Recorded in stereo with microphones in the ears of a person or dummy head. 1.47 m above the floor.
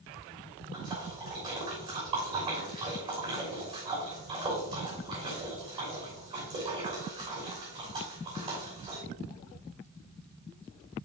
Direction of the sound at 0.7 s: 30° right (ahead or behind).